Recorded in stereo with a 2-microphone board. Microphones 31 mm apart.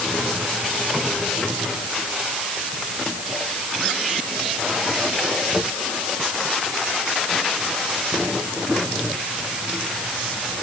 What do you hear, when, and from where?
Only background noise.